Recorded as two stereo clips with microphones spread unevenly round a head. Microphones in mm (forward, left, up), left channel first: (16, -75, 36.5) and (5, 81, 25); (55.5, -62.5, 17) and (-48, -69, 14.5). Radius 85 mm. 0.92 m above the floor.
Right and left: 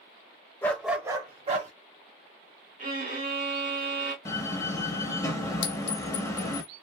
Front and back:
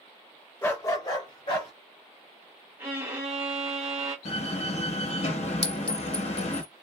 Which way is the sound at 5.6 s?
75° right.